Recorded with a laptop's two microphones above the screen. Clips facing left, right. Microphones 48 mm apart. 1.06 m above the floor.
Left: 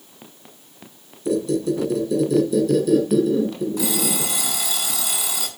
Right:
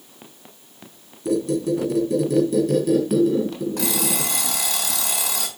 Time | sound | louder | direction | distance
1.2 | a squeak | even | 50° right (ahead or behind) | 3 m
3.8 | an alarm clock | left 1 dB | 70° right (ahead or behind) | 3.5 m